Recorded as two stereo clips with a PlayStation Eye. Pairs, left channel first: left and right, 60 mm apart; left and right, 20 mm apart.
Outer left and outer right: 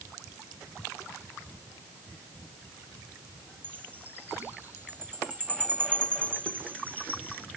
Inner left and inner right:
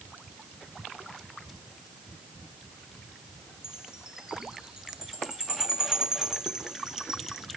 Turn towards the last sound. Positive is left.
turn(degrees=-30)  # may be behind; listen again after turning